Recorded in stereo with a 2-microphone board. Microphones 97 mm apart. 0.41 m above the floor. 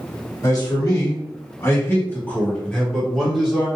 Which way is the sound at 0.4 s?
40° left (ahead or behind).